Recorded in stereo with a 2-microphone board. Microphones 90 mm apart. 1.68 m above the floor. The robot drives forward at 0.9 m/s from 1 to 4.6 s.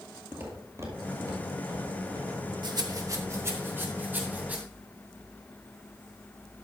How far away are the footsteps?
About 2 m.